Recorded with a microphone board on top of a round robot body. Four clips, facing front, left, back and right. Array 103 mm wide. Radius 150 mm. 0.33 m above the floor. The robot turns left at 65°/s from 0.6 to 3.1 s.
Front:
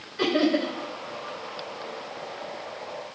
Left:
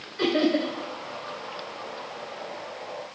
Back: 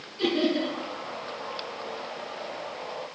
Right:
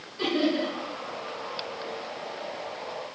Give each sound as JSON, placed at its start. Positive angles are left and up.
{"t": 0.2, "sound": "laughter", "azimuth_deg": 30, "distance_m": 2.0}